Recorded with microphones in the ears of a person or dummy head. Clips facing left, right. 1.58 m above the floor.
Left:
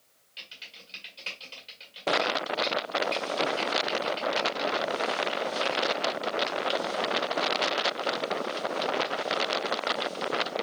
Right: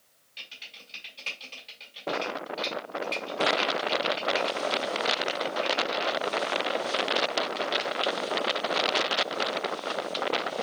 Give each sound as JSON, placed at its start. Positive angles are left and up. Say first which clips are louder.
{"t": 0.4, "sound": "typing on a keyboard", "louder": "even", "side_deg": 10, "distance_m": 4.0}